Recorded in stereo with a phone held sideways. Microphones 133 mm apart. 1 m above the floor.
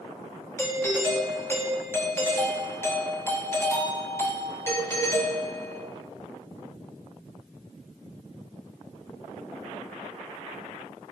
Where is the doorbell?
20° left (ahead or behind), 2.5 m.